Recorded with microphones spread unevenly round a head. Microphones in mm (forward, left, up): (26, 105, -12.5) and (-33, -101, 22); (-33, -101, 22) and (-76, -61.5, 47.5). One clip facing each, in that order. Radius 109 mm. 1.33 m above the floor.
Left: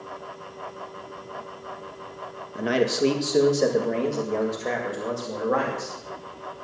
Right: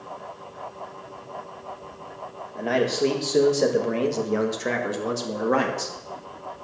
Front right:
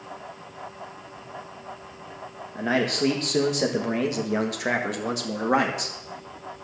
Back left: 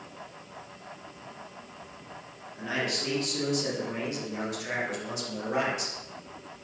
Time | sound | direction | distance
2.5 | a man speaking | 5° left | 1.7 m